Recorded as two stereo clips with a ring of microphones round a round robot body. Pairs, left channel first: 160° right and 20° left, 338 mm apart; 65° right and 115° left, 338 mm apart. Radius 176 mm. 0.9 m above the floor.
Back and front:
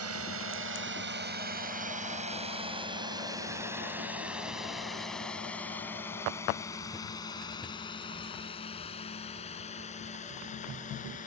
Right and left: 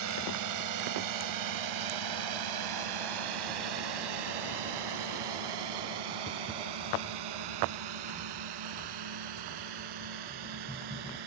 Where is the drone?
70° left; by 11.3 s 135° left.